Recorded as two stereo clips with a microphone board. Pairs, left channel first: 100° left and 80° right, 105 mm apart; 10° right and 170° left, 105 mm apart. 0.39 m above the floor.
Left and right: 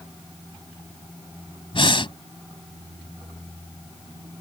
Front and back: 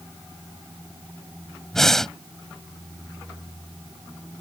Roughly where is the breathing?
Left.